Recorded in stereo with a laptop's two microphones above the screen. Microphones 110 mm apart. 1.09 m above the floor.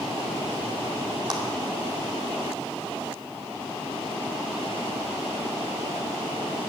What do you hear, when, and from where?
1.3 s a clap: 45° right (ahead or behind), 2 m